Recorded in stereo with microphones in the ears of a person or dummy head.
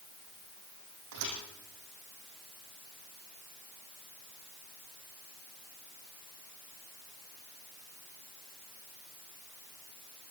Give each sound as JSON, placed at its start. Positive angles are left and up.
{"t": 1.1, "sound": "a thud", "side_deg": -80, "distance_m": 5.5}